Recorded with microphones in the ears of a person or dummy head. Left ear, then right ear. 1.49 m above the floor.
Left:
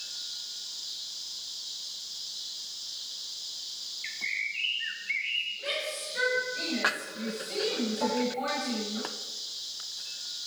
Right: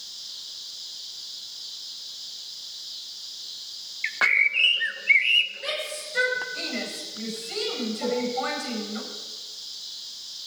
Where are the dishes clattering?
50° left (ahead or behind), 5 m.